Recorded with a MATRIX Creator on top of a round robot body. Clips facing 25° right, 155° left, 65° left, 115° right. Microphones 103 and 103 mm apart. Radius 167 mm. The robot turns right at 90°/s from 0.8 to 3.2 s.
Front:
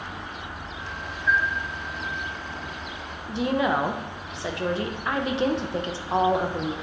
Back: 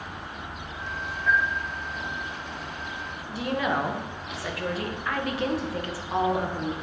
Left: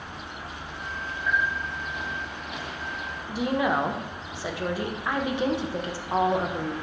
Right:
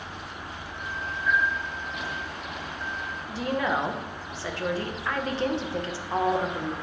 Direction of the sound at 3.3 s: 5° left.